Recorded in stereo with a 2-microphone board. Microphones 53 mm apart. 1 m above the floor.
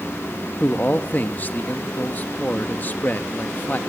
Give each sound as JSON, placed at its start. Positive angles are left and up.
{"t": 0.6, "sound": "a man speaking", "side_deg": 35, "distance_m": 1.5}